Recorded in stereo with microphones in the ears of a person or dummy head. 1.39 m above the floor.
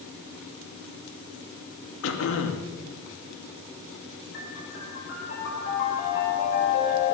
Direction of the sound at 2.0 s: 80° left.